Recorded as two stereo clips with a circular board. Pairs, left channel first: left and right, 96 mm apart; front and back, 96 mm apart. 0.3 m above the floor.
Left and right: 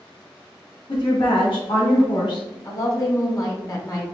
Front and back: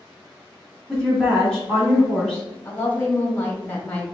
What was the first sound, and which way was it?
A woman speaking, 80° left.